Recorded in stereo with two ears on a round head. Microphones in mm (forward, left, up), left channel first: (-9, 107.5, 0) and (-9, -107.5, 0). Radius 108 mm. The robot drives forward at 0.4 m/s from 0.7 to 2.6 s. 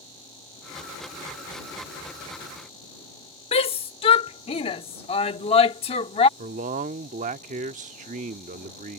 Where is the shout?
25° left (ahead or behind).